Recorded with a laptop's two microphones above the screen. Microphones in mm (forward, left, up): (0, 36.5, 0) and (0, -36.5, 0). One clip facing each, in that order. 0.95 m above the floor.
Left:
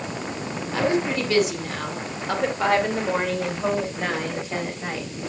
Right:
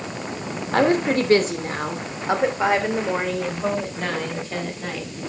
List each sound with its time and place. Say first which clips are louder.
0.7 s a woman speaking: right 4 dB; 55° right (ahead or behind), 2.5 m; by 5.1 s 15° left (ahead or behind), 4.5 m